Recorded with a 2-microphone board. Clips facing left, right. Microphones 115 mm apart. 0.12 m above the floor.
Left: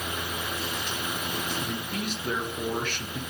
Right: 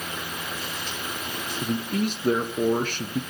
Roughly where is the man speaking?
Right.